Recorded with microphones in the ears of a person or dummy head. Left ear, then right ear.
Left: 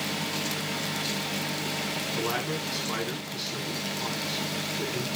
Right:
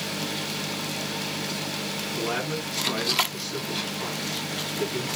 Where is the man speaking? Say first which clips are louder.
Right 3 dB; 20° left (ahead or behind), 8.5 m.